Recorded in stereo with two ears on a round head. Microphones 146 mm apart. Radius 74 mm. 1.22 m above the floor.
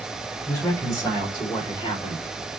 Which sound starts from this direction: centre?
A man speaking, at 0.5 s.